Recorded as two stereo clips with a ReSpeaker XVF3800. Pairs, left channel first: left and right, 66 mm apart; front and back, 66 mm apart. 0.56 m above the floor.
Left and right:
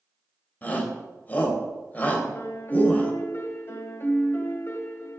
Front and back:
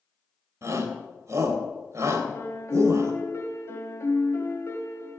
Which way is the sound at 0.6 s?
150° left.